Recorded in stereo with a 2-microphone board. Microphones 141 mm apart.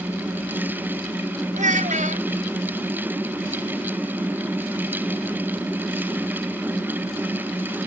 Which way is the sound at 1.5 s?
60° right (ahead or behind).